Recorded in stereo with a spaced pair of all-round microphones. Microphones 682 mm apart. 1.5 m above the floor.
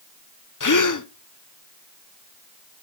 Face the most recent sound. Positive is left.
turn(degrees=30)  # may be behind; listen again after turning